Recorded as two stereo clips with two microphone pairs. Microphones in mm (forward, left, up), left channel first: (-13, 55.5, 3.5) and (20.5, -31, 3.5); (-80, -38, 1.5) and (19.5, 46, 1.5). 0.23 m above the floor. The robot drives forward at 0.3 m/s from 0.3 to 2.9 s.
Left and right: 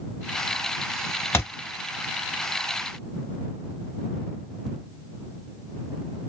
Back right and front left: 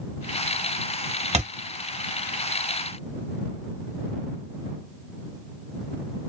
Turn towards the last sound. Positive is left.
turn(degrees=100)